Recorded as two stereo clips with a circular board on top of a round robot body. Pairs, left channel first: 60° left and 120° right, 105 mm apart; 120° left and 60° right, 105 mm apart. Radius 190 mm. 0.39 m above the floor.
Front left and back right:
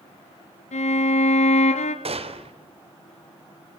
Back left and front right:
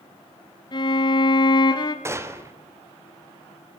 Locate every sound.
0.7 s a violin: 70° left, 1.6 m
2.0 s a gunshot: 120° right, 2.5 m